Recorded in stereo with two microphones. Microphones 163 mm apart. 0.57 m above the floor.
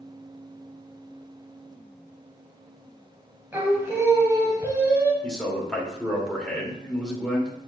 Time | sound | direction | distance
3.5 | singing | 15° right (ahead or behind) | 1.8 m
5.2 | a man speaking | 5° left (ahead or behind) | 2.0 m